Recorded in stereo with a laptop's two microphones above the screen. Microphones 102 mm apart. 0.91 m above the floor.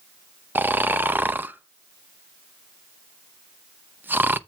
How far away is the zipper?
No zipper in this recording.